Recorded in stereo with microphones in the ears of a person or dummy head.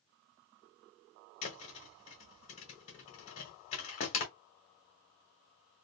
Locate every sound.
1.4 s a thud: 35° left (ahead or behind), 1.1 m